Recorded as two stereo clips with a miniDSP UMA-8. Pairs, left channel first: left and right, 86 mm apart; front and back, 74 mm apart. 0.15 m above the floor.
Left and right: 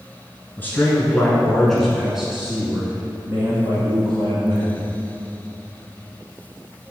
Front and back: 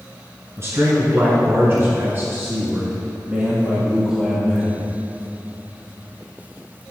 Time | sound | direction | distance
0.6 | a man speaking | 150° left | 1.7 m